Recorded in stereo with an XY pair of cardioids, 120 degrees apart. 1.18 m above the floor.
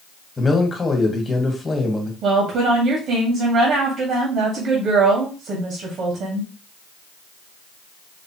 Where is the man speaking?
20° left, 1.9 m.